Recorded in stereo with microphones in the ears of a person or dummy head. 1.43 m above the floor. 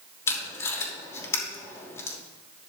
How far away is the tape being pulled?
About 2.5 m.